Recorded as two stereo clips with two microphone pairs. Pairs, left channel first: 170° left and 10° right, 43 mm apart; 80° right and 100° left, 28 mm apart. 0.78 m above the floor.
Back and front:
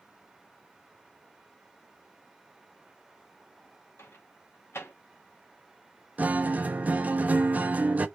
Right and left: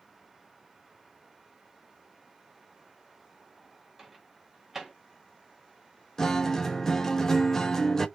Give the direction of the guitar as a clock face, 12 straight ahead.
1 o'clock.